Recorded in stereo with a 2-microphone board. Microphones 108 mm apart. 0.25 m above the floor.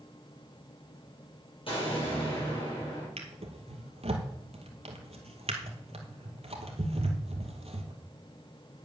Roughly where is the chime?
I don't hear a chime.